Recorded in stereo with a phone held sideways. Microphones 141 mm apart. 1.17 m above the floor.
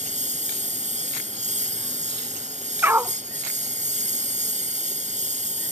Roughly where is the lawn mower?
Right.